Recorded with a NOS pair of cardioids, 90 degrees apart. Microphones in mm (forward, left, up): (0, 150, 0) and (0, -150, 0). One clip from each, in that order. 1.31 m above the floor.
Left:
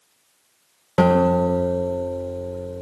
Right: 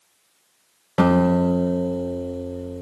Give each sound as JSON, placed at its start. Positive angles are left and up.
{"t": 1.0, "sound": "a guitar", "azimuth_deg": 25, "distance_m": 2.5}